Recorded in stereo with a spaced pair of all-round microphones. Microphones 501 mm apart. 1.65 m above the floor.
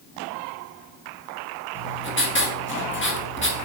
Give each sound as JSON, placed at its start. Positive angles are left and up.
{"t": 1.8, "sound": "writing", "side_deg": 25, "distance_m": 1.6}